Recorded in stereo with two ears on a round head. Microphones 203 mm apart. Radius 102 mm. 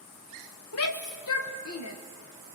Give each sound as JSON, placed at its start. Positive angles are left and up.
{"t": 0.7, "sound": "a shout", "side_deg": 70, "distance_m": 1.0}